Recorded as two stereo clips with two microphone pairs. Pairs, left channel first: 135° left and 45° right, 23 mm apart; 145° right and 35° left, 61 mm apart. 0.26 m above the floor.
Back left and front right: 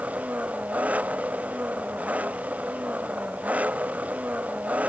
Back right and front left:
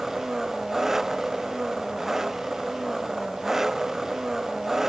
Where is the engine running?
50° right.